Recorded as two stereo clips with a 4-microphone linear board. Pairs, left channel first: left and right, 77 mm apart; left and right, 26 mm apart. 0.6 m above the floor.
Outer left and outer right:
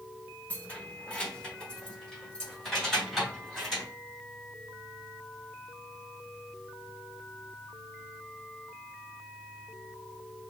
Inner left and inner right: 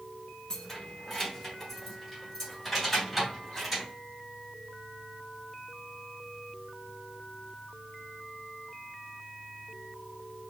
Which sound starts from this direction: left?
Keys jangling, at 0.5 s.